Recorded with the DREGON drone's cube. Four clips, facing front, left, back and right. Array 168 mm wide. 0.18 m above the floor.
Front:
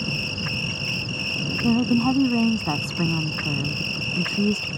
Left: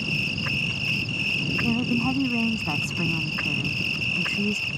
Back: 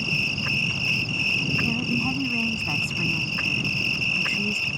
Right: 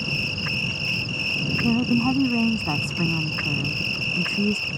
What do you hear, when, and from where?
0.0 s an insect: 170° left
1.6 s a woman speaking: 25° right